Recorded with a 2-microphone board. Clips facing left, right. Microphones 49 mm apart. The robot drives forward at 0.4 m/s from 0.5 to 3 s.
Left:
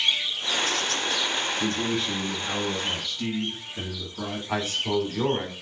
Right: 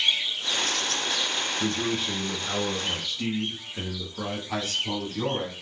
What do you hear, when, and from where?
1.6 s a man speaking: 15° right (ahead or behind), 1.5 m; by 4.4 s 10° right (ahead or behind), 2.0 m
4.5 s a man speaking: 30° left (ahead or behind), 2.0 m